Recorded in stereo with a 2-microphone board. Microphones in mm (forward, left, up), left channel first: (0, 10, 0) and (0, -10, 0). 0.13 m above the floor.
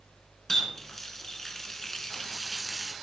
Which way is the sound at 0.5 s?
20° left (ahead or behind).